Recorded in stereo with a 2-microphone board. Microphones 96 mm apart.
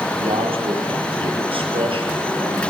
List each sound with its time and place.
0.2 s a man speaking: 70° right (ahead or behind), 7.5 m; by 2.7 s 65° right (ahead or behind), 6 m